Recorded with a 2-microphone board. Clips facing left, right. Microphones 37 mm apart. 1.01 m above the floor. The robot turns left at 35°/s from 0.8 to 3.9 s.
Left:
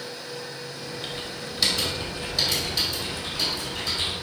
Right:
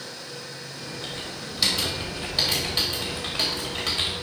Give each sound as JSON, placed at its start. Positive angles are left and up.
{"t": 1.0, "sound": "typing on a keyboard", "side_deg": 15, "distance_m": 2.5}